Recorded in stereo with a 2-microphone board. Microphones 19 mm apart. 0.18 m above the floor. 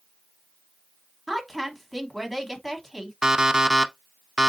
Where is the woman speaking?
5° left (ahead or behind), 1.1 m.